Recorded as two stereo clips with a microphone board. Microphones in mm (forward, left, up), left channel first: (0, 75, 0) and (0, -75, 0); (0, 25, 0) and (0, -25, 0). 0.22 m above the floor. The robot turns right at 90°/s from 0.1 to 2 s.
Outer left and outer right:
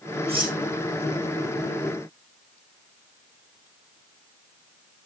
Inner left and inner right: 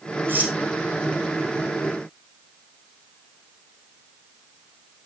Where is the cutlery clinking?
45° right (ahead or behind), 7.5 m; by 0.6 s 20° right (ahead or behind), 7.5 m.